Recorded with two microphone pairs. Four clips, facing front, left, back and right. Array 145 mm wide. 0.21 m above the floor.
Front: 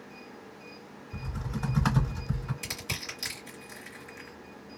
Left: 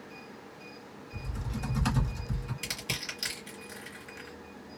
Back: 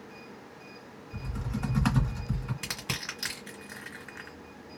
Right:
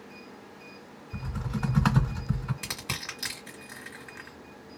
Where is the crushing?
125° right, 2 m.